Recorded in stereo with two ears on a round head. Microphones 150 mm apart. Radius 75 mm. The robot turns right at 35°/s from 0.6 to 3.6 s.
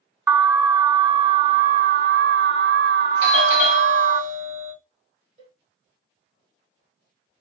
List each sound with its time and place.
0.3 s an alarm: 165° right, 0.5 m; by 4.2 s 60° right, 0.5 m
3.2 s a doorbell: 40° right (ahead or behind), 2 m; by 4.7 s 45° right (ahead or behind), 2 m
5.4 s a cowbell: 45° right (ahead or behind), 1.6 m